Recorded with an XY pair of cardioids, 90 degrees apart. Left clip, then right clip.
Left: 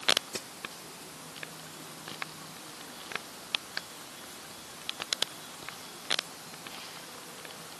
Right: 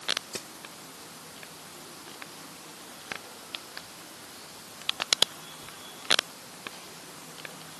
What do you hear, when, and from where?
0.3 s a snare drum: 5° right